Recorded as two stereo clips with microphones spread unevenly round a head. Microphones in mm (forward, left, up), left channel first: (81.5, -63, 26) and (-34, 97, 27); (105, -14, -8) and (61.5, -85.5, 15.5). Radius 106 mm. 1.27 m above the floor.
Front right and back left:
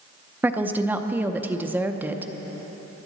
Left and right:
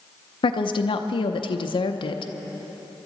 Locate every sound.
0.4 s a woman speaking: 45° left, 0.7 m